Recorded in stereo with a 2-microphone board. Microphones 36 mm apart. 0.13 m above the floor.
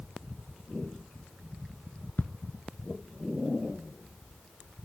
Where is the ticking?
50° left (ahead or behind), 0.5 m.